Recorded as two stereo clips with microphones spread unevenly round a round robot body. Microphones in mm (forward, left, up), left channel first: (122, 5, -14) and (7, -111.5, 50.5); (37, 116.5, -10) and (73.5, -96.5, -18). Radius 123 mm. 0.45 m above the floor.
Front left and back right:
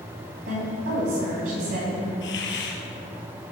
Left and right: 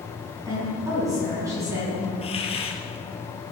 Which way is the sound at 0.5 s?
160° right.